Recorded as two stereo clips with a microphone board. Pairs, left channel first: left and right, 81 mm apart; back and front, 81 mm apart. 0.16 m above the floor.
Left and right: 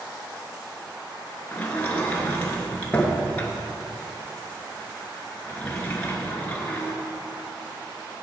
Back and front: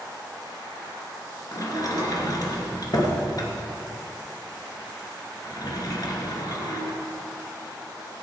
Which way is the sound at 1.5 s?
160° left.